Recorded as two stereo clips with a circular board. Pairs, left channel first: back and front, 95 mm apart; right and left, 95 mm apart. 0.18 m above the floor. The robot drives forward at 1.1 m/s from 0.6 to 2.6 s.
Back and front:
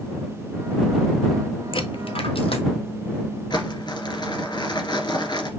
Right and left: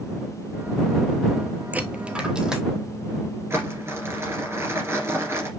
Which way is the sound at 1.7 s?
160° left.